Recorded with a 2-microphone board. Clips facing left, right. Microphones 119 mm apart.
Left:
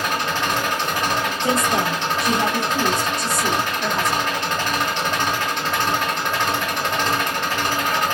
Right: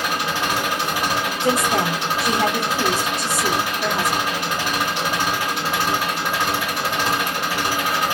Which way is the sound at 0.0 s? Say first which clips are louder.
Even; 10° right (ahead or behind).